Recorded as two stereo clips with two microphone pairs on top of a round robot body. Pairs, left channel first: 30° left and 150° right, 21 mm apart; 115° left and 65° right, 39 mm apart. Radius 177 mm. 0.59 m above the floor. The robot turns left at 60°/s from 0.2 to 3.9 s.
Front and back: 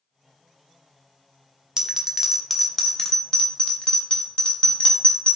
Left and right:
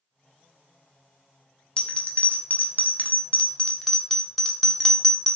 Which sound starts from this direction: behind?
A bell, at 1.8 s.